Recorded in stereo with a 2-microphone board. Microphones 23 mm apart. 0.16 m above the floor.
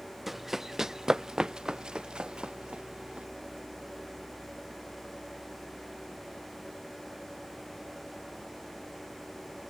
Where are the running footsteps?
10° right (ahead or behind); by 3.3 s 45° right (ahead or behind).